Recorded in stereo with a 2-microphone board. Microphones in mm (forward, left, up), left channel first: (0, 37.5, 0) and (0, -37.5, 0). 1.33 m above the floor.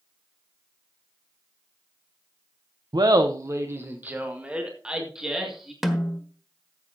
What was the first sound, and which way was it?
Laughter, 65° right (ahead or behind).